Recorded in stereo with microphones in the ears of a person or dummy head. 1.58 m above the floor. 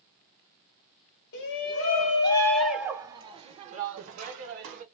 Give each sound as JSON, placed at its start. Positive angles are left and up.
{"t": 1.3, "sound": "a shout", "side_deg": 55, "distance_m": 0.8}